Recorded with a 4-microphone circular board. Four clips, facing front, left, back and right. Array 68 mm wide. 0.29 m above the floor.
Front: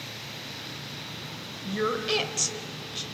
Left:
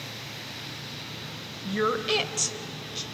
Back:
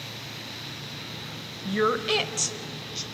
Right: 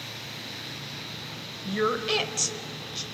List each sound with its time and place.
1.6 s a woman speaking: 175° left, 1.0 m; by 3.0 s 5° left, 1.0 m